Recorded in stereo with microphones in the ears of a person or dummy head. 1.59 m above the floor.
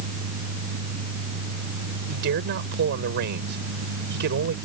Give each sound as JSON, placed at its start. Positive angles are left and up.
{"t": 2.1, "sound": "a man speaking", "side_deg": -60}